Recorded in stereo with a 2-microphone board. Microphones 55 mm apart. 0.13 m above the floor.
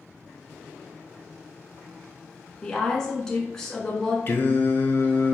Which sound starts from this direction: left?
Singing, at 4.3 s.